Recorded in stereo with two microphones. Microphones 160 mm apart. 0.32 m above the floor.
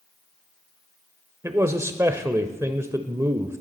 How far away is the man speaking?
About 0.9 m.